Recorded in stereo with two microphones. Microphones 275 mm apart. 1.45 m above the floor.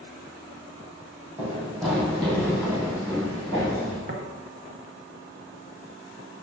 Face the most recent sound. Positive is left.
turn(degrees=-35)  # may be behind; listen again after turning